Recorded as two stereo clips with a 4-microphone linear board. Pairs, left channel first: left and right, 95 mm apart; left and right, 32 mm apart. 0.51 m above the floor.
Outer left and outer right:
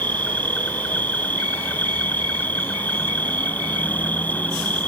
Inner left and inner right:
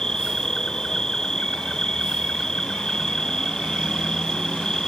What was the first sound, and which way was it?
An insect, 15° left (ahead or behind).